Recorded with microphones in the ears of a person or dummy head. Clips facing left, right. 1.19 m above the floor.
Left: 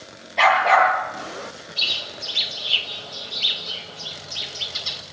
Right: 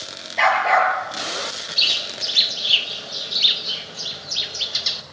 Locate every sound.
0.4 s a dog barking: 5° right (ahead or behind), 9.5 m
1.8 s a bird: 20° right (ahead or behind), 1.7 m